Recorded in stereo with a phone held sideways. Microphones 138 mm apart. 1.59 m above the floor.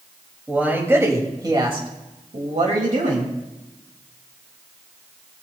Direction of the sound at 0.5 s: 10° right (ahead or behind).